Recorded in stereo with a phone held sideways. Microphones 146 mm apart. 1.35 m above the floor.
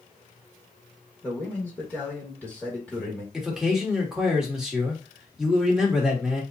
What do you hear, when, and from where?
1.2 s a man speaking: 10° left (ahead or behind), 2 m
3.3 s a man speaking: 5° right (ahead or behind), 2 m